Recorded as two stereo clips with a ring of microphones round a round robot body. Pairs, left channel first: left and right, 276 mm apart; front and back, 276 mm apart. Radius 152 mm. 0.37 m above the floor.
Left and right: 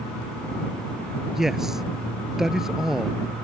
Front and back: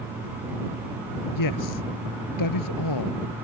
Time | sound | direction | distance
1.3 | a man speaking | straight ahead | ?